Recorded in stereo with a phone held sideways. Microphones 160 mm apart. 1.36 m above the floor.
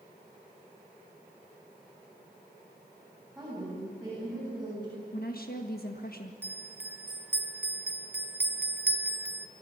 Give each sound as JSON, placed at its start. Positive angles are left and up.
{"t": 3.4, "sound": "a woman speaking", "side_deg": -5, "distance_m": 9.5}
{"t": 5.1, "sound": "a woman speaking", "side_deg": 65, "distance_m": 1.5}
{"t": 6.4, "sound": "a bell", "side_deg": -10, "distance_m": 1.2}